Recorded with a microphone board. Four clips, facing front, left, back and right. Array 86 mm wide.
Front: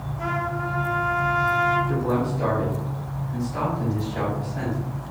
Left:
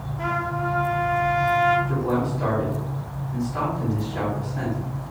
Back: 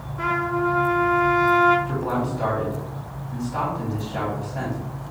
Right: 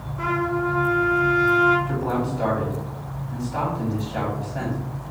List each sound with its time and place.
0.2 s a trumpet: 140° right, 2 m
1.9 s a man speaking: 115° right, 3.5 m